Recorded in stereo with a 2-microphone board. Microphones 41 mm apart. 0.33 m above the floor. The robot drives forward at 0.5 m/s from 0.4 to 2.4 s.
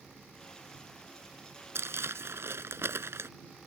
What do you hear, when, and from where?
1.8 s crumpling: 75° right (ahead or behind)